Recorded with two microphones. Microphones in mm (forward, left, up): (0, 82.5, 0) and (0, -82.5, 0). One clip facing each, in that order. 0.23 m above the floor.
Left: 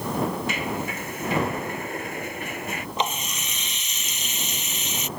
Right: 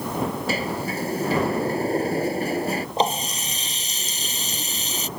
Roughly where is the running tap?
Right.